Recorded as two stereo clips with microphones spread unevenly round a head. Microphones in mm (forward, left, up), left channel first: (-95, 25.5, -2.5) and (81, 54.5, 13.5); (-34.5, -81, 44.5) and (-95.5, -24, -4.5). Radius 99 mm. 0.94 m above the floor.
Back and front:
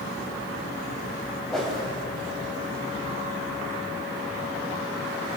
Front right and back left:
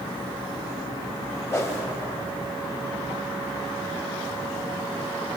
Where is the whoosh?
80° right, 1.4 m.